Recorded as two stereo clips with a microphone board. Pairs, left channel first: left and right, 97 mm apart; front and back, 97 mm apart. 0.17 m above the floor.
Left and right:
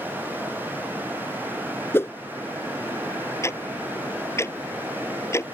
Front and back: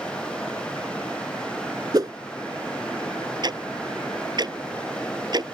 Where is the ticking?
145° left.